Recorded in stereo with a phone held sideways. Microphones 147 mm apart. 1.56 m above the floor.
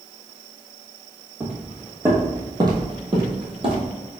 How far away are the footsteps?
About 2.0 m.